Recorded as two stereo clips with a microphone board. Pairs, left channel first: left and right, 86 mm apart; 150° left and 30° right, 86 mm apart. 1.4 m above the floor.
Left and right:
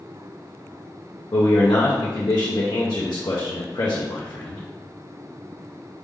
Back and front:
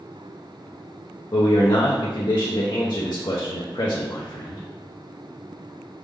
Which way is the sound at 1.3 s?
125° left.